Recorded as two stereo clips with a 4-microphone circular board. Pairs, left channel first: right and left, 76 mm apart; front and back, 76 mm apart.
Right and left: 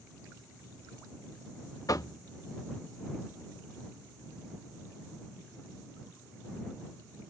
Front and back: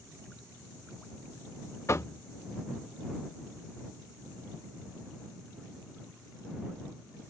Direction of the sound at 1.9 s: 50° right.